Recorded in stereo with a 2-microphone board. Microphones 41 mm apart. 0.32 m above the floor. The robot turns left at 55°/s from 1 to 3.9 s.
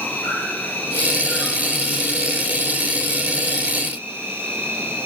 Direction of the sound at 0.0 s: 55° left.